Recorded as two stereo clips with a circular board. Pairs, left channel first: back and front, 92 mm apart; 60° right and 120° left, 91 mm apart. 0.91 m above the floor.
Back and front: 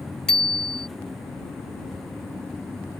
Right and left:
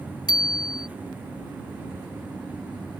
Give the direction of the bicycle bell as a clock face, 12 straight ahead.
3 o'clock.